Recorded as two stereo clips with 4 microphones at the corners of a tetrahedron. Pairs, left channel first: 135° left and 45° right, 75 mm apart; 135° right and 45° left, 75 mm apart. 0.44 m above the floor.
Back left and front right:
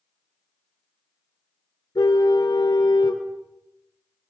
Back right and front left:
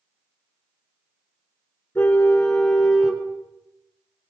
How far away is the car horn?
About 3 m.